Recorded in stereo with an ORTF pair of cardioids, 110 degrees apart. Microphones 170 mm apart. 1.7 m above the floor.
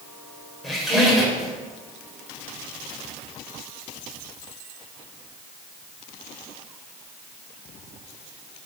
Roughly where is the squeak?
Ahead.